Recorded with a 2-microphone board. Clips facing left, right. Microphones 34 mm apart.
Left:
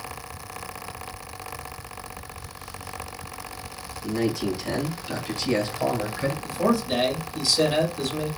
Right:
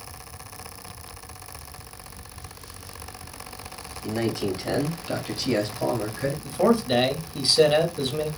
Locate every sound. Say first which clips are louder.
4.0 s a man speaking: left 1 dB; 45° right (ahead or behind), 2 m; by 6.3 s 15° left (ahead or behind), 1.5 m
6.4 s a man speaking: right 3 dB; 30° right (ahead or behind), 1.0 m